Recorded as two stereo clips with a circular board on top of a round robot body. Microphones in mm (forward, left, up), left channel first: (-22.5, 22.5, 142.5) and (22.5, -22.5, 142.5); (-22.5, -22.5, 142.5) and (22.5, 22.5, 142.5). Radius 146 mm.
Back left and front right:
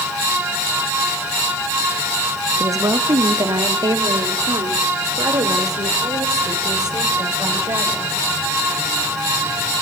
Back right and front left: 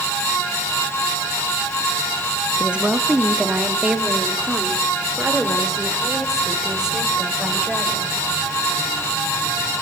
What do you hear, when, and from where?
2.6 s a woman speaking: 25° right, 1.6 m; by 8.1 s 40° right, 4.5 m